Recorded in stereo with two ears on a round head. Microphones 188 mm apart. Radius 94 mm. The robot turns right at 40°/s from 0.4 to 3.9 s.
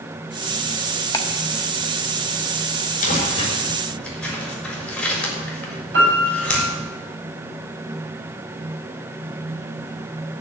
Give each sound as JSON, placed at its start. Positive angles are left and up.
{"t": 1.1, "sound": "ticking", "side_deg": 15, "distance_m": 1.0}
{"t": 3.0, "sound": "crumpling", "side_deg": 40, "distance_m": 4.0}
{"t": 5.9, "sound": "a piano", "side_deg": -60, "distance_m": 6.5}